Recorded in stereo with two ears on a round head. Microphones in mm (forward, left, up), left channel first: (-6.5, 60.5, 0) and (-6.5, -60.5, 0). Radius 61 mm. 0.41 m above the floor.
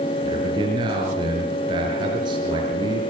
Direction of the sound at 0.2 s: 35° right (ahead or behind).